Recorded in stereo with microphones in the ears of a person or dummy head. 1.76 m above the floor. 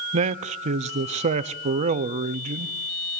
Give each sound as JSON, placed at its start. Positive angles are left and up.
{"t": 0.1, "sound": "a man speaking", "side_deg": -40, "distance_m": 0.7}